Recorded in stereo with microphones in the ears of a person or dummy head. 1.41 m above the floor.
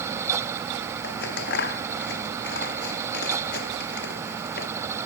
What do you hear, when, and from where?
1.0 s scissors: 70° left (ahead or behind)